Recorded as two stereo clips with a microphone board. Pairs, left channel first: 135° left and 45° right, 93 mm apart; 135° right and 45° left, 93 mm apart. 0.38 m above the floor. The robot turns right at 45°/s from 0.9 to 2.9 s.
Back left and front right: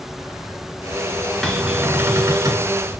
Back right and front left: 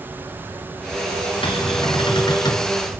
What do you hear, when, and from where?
1.4 s a cupboard door: 135° right, 4 m; by 2.7 s 80° right, 4 m